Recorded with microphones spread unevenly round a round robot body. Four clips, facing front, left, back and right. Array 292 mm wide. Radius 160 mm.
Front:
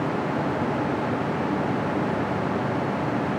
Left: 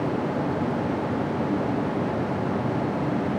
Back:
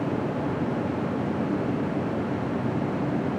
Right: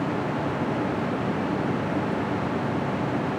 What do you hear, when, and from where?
Only background noise.